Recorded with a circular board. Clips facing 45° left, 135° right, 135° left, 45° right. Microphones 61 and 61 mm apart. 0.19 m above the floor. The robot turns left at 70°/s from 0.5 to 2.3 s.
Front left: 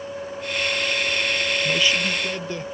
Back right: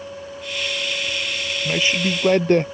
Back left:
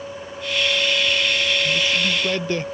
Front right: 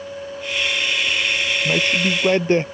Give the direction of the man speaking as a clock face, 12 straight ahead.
2 o'clock.